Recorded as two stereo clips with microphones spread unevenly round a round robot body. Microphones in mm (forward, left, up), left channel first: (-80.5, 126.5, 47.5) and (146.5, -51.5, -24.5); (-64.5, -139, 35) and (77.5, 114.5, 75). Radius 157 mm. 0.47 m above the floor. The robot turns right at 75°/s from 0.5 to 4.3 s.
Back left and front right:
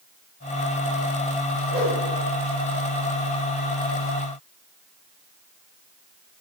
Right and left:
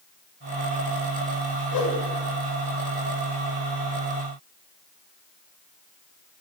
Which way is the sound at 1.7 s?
105° right.